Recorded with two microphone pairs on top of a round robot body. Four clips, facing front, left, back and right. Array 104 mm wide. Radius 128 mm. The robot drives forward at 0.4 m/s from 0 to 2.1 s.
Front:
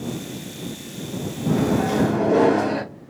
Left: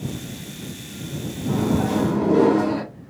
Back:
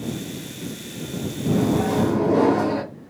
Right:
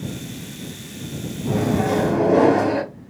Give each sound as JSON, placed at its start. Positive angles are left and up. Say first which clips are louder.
{"t": 1.5, "sound": "a microwave", "louder": "right 1 dB, even", "azimuth_deg": -60, "distance_m": 2.5}